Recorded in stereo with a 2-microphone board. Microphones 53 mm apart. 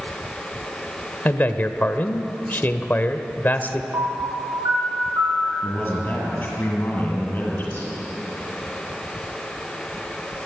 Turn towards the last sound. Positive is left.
turn(degrees=35)  # may be behind; listen again after turning